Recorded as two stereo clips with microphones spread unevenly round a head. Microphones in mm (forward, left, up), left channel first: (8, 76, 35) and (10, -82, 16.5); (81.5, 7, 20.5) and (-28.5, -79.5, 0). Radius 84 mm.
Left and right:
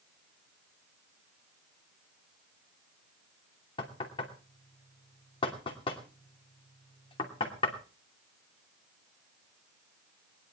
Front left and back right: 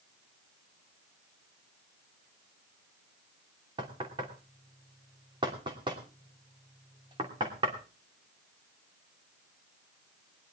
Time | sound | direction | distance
3.8 | knocking | 150° left | 2.5 m